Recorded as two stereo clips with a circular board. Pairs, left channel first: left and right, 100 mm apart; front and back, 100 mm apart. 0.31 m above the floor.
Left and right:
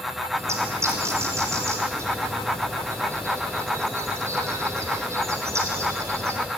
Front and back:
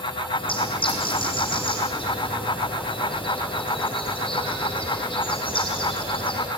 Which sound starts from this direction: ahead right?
A bird, at 0.3 s.